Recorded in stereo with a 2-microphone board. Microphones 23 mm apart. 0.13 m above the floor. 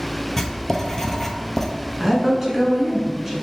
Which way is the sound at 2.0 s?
15° right (ahead or behind).